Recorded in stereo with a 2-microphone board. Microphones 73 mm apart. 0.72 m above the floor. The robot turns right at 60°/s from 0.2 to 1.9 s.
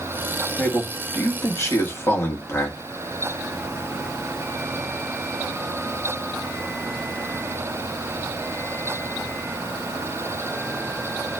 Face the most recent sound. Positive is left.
turn(degrees=115)